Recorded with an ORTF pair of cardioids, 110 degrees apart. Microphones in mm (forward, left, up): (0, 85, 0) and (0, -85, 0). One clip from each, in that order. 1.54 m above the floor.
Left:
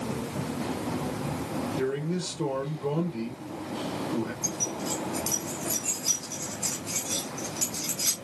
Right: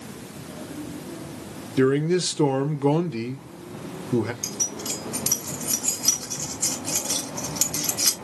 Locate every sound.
1.8 s a man speaking: 70° right, 1.1 m
4.4 s keys jangling: 65° right, 2.5 m